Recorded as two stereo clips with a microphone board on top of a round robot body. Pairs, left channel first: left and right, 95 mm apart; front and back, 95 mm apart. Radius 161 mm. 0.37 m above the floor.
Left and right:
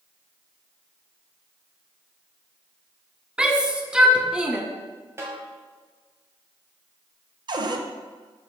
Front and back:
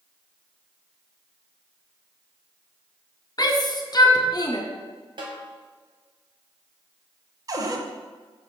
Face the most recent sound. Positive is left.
turn(degrees=-130)